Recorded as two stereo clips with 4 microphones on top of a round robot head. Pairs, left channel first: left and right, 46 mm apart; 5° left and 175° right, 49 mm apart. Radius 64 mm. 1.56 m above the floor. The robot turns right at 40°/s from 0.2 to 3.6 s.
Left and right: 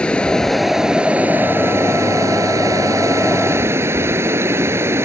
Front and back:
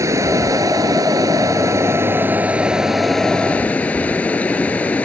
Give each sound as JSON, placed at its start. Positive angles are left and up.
{"t": 0.0, "sound": "running water", "azimuth_deg": 165}